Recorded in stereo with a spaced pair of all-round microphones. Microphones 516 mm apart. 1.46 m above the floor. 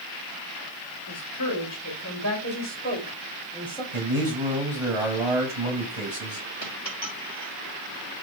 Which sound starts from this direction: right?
A man speaking, at 3.9 s.